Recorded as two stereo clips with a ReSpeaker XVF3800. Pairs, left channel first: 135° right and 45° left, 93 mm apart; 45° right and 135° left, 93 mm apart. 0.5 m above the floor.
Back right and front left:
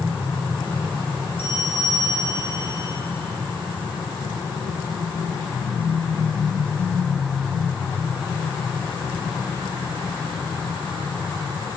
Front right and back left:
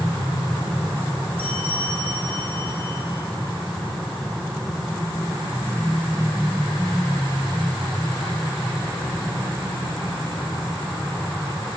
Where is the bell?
70° left, 8 m.